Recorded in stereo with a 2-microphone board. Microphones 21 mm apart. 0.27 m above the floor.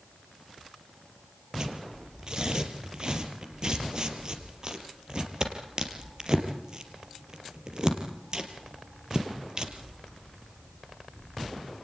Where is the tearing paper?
35° right (ahead or behind), 4 m.